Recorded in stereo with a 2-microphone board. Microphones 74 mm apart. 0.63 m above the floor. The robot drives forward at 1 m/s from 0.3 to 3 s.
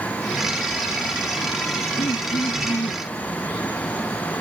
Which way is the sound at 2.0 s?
75° left (ahead or behind).